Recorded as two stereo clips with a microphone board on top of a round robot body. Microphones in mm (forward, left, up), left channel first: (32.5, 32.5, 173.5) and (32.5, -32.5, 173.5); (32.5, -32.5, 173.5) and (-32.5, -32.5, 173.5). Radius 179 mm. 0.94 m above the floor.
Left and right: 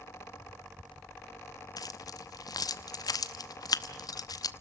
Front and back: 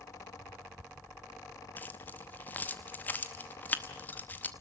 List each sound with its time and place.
1.8 s keys jangling: 65° left, 0.9 m